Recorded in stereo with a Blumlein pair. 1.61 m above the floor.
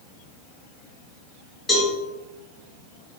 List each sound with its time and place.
1.7 s a cowbell: 15° left, 2 m